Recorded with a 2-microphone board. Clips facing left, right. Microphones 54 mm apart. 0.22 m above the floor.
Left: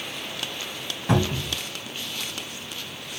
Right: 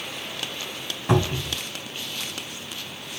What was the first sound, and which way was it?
A cupboard door, 5° right (ahead or behind).